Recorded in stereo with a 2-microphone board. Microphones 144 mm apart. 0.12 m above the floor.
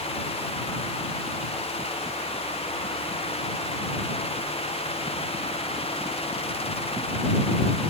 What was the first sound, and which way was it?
Only background noise.